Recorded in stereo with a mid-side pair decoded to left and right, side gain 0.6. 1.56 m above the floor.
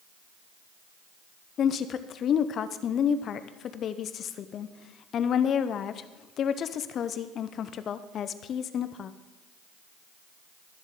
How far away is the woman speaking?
About 0.6 m.